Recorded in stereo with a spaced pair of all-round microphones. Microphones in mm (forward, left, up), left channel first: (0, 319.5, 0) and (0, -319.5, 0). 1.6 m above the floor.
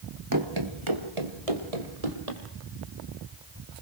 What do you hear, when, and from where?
0.3 s running footsteps: 30° right (ahead or behind), 2 m; by 2.4 s 70° right (ahead or behind), 4.5 m